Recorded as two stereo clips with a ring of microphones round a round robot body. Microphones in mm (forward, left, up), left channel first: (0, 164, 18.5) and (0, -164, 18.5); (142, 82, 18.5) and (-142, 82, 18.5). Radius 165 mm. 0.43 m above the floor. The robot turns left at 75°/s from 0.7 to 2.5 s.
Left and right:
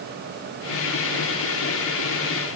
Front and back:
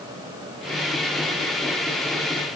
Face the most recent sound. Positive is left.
No sound to turn to.